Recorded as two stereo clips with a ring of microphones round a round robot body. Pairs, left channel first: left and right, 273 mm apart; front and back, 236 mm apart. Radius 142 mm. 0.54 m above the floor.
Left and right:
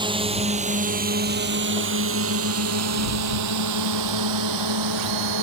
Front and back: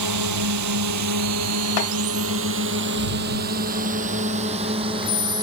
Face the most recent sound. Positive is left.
turn(degrees=-105)